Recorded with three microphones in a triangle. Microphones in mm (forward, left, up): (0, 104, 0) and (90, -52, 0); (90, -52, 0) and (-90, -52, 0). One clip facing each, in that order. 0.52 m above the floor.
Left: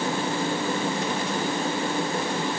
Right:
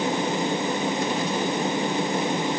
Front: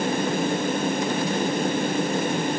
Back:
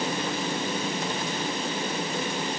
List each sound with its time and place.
Only background noise.